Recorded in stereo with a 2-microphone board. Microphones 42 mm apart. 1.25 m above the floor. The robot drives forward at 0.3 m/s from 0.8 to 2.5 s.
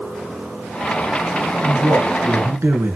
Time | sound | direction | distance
1.6 | a man speaking | 75° right (ahead or behind) | 1.3 m